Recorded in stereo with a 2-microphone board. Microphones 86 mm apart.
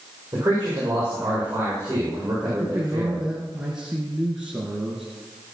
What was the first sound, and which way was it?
A man speaking, 25° right (ahead or behind).